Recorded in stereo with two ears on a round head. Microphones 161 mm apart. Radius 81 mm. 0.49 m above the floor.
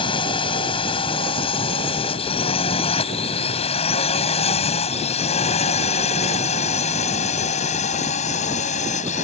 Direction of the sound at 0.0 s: 30° left (ahead or behind).